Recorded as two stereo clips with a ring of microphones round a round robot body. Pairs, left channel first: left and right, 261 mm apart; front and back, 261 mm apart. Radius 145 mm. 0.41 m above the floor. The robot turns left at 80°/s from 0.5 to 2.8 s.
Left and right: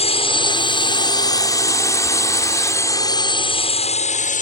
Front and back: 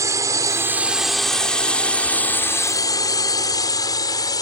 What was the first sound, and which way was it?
A drone, 115° left.